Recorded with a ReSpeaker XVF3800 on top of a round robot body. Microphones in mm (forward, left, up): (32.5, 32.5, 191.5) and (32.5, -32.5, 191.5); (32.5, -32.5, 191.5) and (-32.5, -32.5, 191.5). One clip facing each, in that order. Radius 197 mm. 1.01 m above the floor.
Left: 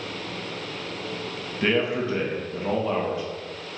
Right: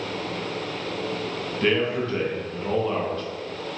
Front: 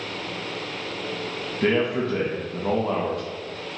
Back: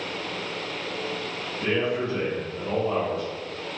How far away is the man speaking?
About 1.4 m.